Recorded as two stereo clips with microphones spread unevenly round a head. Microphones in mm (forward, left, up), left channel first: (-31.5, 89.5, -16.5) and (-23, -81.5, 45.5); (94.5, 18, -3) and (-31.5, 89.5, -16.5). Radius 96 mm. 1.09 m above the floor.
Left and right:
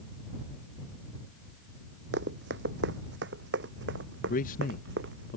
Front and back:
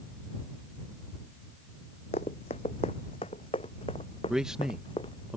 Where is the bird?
I don't hear a bird.